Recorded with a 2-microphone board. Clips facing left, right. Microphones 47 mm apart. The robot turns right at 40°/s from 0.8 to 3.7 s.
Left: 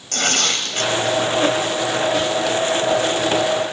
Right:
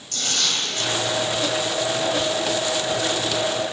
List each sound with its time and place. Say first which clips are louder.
0.1 s tearing paper: left 5 dB; 65° left (ahead or behind), 3 m